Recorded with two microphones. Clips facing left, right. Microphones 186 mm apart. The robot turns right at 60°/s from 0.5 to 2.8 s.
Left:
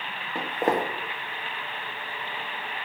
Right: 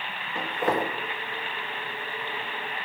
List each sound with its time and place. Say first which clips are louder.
0.3 s footsteps: left 1 dB; 35° left (ahead or behind), 0.8 m; by 0.9 s 55° left (ahead or behind), 0.8 m